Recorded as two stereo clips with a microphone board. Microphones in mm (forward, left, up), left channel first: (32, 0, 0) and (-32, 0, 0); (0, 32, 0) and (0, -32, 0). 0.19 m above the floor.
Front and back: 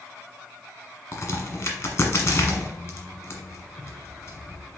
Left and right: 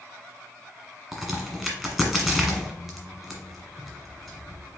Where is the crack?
5° right, 1.2 m.